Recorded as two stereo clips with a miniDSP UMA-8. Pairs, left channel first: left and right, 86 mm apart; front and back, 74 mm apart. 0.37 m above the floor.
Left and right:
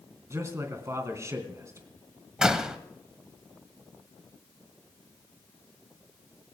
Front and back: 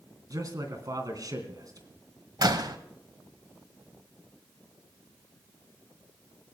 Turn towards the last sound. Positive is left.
turn(degrees=-170)